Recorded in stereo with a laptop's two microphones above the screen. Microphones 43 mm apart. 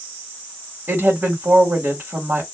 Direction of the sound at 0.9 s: 55° right (ahead or behind).